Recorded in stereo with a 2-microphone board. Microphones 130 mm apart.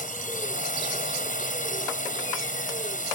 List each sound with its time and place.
0.0 s a drone: 80° left